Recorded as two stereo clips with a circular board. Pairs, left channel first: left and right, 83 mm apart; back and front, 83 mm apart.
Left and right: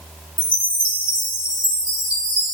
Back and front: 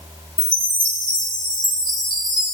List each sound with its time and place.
0.4 s a chime: 15° right, 5.5 m